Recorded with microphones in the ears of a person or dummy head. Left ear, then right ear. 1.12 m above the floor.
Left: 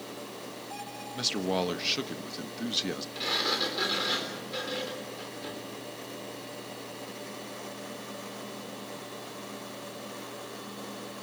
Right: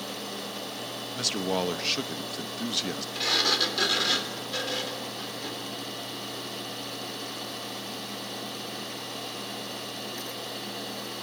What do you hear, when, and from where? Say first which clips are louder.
1.1 s a man speaking: right 1 dB; centre (ahead or behind), 1.1 m
3.1 s a sliding door: right 5 dB; 15° right (ahead or behind), 3.5 m